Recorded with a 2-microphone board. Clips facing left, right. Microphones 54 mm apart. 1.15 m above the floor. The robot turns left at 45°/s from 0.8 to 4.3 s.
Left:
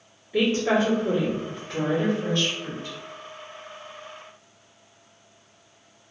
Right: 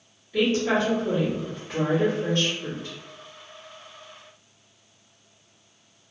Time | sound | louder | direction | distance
0.3 | a woman speaking | left 1 dB | 30° left (ahead or behind) | 1.5 m